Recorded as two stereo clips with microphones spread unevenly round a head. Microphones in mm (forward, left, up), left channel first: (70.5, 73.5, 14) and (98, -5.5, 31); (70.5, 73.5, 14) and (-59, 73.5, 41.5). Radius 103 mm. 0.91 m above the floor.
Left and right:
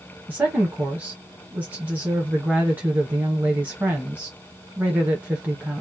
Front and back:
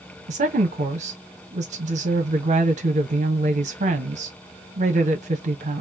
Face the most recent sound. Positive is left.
turn(degrees=-150)